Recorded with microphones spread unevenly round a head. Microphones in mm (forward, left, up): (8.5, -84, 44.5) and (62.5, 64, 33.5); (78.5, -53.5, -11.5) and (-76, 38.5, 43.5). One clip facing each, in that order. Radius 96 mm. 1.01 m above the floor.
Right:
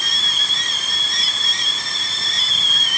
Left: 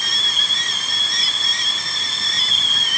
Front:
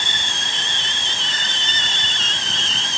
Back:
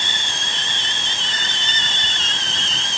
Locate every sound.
Only background noise.